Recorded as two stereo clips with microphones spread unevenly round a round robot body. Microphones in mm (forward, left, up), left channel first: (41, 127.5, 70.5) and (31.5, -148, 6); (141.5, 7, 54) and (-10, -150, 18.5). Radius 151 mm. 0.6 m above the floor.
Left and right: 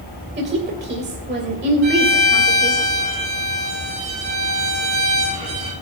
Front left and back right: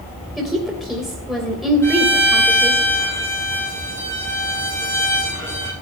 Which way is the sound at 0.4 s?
50° right.